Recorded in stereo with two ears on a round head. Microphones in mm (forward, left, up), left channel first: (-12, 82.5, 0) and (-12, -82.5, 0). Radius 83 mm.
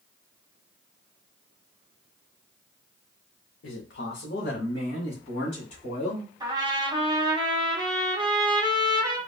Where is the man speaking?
70° left (ahead or behind), 0.6 m; by 6.3 s 45° left (ahead or behind), 2 m.